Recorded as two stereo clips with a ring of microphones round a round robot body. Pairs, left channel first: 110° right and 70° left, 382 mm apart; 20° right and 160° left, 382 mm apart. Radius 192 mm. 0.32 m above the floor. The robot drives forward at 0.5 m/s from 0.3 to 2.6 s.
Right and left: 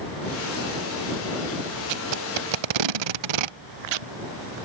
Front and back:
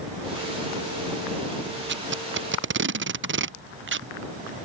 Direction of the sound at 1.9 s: 95° left.